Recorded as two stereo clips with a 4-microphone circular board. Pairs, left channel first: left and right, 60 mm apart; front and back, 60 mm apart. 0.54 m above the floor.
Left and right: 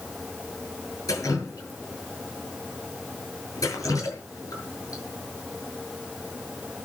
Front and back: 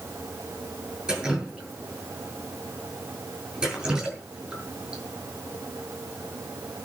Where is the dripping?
105° left, 8.5 m.